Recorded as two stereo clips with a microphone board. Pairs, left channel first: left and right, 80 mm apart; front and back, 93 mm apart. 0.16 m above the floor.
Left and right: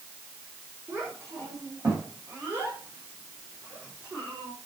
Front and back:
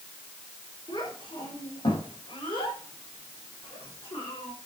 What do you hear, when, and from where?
0.9 s a child speaking: 30° right, 6 m; by 4.5 s 15° right, 6.5 m